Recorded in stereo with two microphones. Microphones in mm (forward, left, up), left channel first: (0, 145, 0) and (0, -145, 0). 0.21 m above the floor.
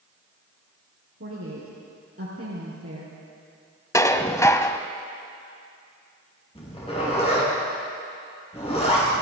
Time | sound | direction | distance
1.2 | a woman speaking | 50° right (ahead or behind) | 4 m
3.9 | dishes clattering | 10° left (ahead or behind) | 0.7 m
6.5 | a zipper | 20° left (ahead or behind) | 6 m